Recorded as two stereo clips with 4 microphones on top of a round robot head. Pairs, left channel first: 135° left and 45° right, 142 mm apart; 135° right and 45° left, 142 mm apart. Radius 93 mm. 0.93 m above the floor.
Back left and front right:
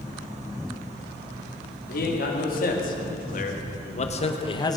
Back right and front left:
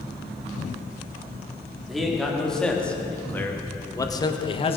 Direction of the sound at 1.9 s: 135° left.